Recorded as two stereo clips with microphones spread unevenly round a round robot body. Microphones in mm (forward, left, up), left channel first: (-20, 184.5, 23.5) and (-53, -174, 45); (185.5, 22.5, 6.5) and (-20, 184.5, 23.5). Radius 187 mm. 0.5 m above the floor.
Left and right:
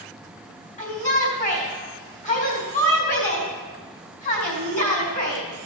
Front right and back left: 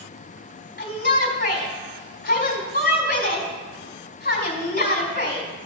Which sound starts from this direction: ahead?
A shout, at 0.8 s.